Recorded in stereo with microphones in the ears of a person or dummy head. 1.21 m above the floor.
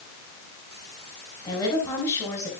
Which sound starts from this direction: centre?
A woman speaking, at 1.4 s.